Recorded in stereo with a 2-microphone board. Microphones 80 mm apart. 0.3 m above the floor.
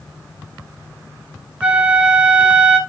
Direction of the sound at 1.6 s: 15° right (ahead or behind).